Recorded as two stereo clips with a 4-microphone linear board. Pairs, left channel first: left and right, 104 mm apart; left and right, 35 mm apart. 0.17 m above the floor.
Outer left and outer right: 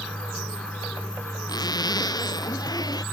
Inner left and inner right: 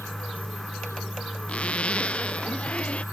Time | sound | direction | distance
1.5 | a zipper | 40° left (ahead or behind) | ?